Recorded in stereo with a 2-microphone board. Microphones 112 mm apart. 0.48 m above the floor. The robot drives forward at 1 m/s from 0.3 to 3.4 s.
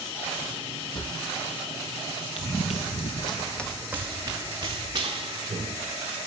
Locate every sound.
0.9 s a drawer: 45° left (ahead or behind), 0.9 m; by 1.1 s 40° left (ahead or behind), 1.0 m
2.4 s running footsteps: 60° left (ahead or behind), 2 m; by 5.7 s 50° right (ahead or behind), 3.5 m